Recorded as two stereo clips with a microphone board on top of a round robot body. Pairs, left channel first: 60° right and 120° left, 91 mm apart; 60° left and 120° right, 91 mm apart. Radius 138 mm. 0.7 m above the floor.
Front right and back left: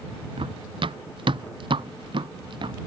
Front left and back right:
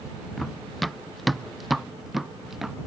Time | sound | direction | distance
0.4 | running footsteps | 150° left | ?